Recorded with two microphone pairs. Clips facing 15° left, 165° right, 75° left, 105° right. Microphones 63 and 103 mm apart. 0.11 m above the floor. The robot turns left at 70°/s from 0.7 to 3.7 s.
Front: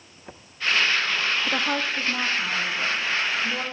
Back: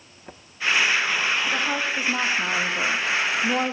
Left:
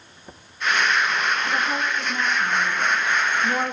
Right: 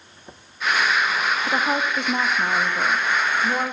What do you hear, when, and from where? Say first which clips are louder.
1.5 s a woman speaking: back 1 dB, right 2 dB; 50° right, 5.5 m; by 3.7 s 155° left, 5.5 m